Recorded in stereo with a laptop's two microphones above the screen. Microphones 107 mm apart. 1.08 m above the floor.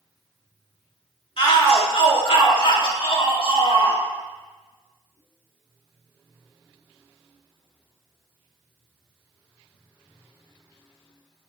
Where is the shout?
60° left (ahead or behind), 2.5 m.